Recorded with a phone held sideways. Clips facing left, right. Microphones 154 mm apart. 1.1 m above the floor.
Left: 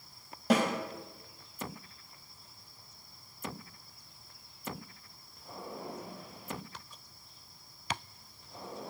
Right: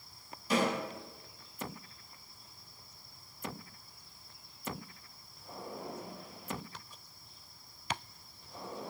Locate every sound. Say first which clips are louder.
0.5 s a snare drum: left 3 dB; 75° left (ahead or behind), 4 m